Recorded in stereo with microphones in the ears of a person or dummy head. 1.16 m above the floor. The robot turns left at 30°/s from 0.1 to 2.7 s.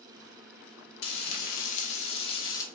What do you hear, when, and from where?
1.0 s frying: 75° left, 1.5 m; by 2.6 s 25° left, 1.5 m